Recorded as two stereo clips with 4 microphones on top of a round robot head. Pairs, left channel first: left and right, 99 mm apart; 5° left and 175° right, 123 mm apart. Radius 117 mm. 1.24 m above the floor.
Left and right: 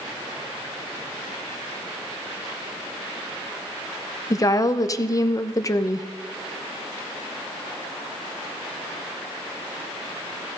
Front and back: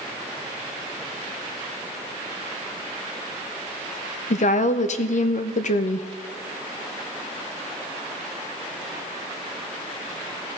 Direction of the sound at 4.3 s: 35° left.